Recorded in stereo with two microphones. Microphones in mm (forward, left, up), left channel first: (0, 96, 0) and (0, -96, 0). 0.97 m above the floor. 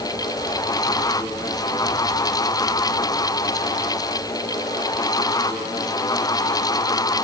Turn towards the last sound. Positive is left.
No sound to turn to.